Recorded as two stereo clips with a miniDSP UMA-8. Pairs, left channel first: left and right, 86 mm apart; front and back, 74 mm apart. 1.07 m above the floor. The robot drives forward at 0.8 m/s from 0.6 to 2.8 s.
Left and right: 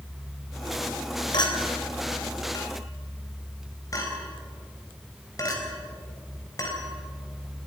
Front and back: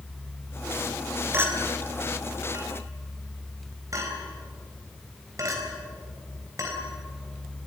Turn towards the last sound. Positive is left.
turn(degrees=135)